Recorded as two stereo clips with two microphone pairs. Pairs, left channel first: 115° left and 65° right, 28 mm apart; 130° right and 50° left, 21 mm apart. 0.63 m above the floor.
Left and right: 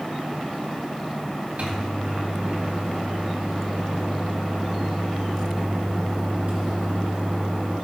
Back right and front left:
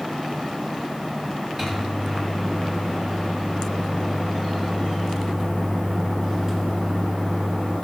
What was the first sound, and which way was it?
A microwave, 25° right.